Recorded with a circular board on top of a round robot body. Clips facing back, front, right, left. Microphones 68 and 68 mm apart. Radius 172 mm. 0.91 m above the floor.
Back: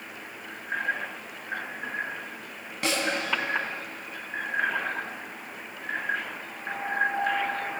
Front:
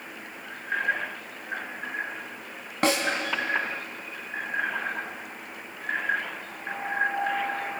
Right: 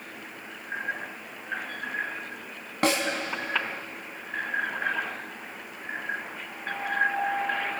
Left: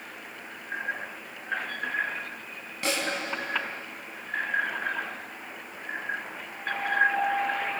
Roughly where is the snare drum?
Ahead right.